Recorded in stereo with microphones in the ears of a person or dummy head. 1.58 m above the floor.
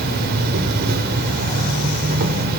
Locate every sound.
0.0 s an insect: 55° right (ahead or behind), 0.8 m